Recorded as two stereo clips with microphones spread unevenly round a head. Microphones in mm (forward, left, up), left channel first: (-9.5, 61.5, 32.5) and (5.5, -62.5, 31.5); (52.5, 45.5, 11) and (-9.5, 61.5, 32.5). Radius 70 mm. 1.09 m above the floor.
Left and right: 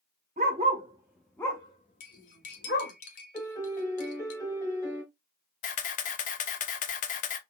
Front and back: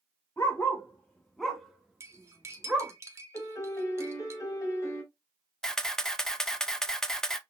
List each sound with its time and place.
0.4 s a dog barking: 100° right, 0.8 m; by 2.9 s 100° left, 1.3 m
2.0 s cutlery clinking: 125° left, 0.9 m
3.3 s a piano: 35° left, 1.4 m
5.6 s a camera shutter: 70° left, 0.6 m